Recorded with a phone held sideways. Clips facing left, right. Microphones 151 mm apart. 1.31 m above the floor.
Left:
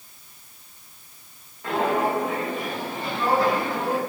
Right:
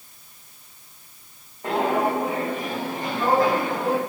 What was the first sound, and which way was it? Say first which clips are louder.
Footsteps: right 1 dB; 35° right (ahead or behind).